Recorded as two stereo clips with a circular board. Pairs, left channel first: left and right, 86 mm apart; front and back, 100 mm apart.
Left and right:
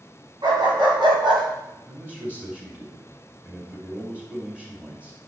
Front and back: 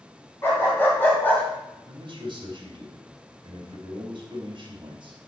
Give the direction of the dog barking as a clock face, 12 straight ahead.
2 o'clock.